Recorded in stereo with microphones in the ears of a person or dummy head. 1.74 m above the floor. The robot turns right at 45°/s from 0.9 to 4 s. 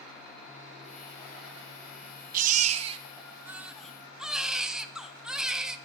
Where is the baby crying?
70° right, 1.0 m; by 5.8 s 5° left, 1.0 m.